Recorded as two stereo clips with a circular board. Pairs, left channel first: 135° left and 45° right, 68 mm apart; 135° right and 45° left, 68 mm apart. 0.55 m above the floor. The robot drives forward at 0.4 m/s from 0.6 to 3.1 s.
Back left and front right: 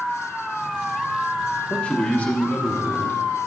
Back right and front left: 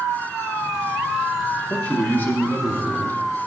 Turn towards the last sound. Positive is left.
turn(degrees=-175)